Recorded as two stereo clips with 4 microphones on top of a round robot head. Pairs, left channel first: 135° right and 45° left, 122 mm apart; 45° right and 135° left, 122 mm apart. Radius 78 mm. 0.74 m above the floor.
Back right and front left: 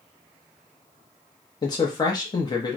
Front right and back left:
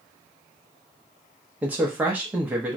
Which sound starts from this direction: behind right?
A man speaking, at 1.6 s.